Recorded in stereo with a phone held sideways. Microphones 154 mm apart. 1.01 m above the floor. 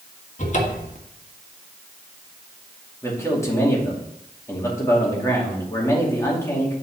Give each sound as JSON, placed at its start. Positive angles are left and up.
{"t": 0.4, "sound": "a cupboard door", "side_deg": 55, "distance_m": 1.5}
{"t": 3.0, "sound": "a man speaking", "side_deg": 20, "distance_m": 2.5}